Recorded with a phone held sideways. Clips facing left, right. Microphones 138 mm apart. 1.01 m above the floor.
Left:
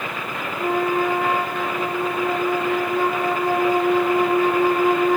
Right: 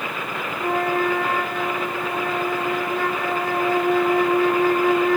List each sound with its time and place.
0.6 s a flute: 15° left (ahead or behind), 1.3 m